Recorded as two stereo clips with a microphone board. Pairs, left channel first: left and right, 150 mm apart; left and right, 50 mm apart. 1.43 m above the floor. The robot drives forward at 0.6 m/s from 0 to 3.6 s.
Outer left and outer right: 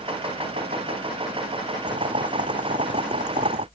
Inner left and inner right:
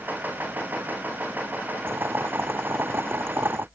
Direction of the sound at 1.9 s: 55° right (ahead or behind).